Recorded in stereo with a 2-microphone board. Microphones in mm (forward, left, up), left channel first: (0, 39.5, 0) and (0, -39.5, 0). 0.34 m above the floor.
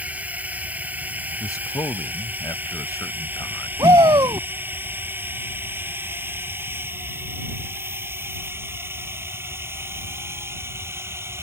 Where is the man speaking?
45° left (ahead or behind).